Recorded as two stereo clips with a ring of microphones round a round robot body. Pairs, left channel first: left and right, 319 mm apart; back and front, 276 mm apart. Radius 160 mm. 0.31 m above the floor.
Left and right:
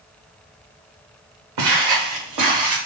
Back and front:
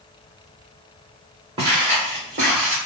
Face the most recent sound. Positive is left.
turn(degrees=-65)